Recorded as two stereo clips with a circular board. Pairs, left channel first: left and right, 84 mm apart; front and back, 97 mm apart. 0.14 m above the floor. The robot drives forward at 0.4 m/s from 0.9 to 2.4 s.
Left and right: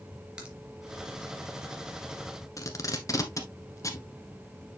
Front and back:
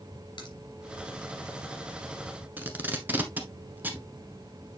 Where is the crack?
15° right, 2.5 m.